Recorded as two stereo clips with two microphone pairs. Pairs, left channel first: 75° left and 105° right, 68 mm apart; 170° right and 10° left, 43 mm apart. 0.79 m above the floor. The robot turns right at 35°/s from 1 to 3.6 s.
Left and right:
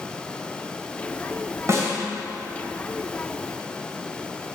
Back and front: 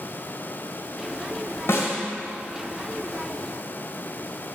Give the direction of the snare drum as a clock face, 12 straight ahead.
5 o'clock.